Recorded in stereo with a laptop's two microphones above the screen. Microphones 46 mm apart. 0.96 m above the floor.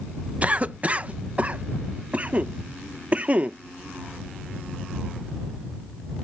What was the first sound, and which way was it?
A cough, 35° right (ahead or behind).